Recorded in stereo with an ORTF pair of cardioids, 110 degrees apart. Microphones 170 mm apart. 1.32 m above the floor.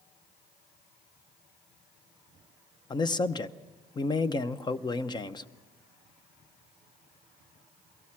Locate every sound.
2.9 s a man speaking: 25° left, 0.8 m